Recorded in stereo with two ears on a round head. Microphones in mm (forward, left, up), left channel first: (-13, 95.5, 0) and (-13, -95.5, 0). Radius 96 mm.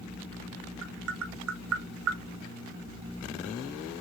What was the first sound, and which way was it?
Tapping, 70° right (ahead or behind).